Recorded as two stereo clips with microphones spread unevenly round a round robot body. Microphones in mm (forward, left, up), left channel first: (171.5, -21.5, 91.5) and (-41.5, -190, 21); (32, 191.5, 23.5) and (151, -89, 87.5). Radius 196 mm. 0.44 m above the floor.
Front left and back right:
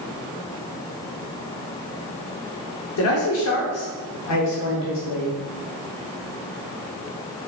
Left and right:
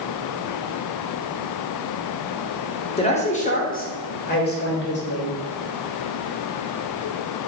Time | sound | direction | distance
3.0 | a man speaking | 65° left | 1.8 m